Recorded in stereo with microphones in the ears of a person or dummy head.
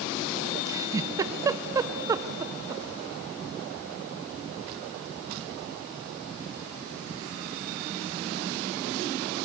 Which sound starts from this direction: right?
A giggle, at 0.7 s.